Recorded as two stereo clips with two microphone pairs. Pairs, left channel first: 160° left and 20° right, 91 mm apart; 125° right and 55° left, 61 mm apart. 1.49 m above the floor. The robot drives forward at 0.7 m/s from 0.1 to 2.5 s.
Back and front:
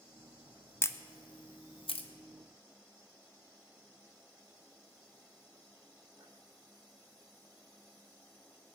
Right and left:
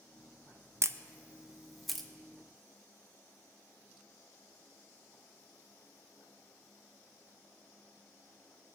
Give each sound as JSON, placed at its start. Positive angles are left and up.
{"t": 0.8, "sound": "a camera shutter", "azimuth_deg": 95, "distance_m": 0.6}